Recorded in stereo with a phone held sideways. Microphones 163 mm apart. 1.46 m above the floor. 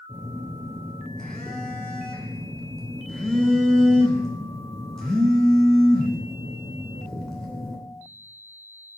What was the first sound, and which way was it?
A phone buzzing, 5° left (ahead or behind).